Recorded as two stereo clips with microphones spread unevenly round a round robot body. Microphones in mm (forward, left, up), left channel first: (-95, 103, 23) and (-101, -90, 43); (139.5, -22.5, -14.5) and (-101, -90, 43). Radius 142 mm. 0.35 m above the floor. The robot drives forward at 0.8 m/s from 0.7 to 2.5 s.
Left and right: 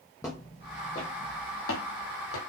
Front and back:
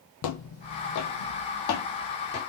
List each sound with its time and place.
0.2 s footsteps: 5° left, 0.6 m; by 2.4 s 75° left, 0.9 m